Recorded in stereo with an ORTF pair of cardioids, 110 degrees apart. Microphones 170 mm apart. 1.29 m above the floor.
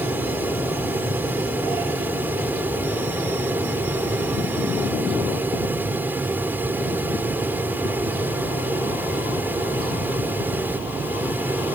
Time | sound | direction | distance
0.0 | a fan | 10° right | ?